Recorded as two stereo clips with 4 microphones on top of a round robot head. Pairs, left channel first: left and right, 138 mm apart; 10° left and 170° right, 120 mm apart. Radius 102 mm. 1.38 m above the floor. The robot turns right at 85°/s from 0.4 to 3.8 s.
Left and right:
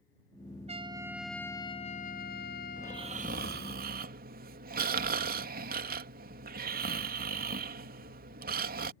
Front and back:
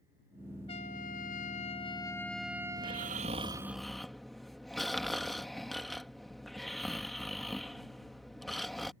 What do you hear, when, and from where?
0.7 s a trumpet: 50° right; by 3.2 s 165° left
2.8 s snoring: 170° right; by 8.9 s 80° right